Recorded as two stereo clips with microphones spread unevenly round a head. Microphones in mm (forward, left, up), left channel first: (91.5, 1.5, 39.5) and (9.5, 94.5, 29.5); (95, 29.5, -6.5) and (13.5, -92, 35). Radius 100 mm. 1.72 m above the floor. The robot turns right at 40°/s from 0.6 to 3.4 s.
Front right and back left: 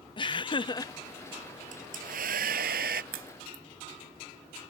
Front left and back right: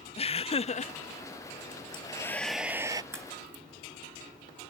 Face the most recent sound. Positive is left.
turn(degrees=175)